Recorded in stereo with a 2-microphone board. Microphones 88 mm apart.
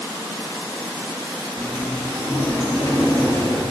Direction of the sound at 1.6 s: 35° left (ahead or behind).